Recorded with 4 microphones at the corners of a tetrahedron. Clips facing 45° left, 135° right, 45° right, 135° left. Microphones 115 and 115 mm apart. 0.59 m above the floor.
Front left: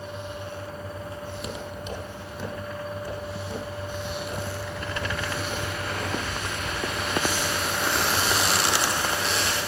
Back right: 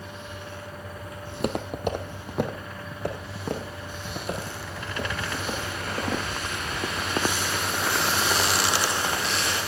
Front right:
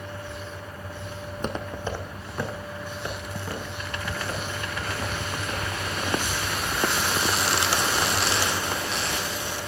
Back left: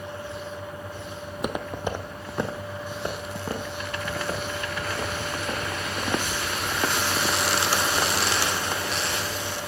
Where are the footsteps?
145° right, 0.8 m; by 6.2 s 165° right, 3.5 m.